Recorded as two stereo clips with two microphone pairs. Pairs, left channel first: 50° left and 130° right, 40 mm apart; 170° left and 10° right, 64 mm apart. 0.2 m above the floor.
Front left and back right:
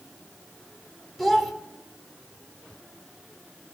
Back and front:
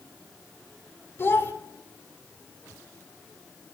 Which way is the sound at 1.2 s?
145° left.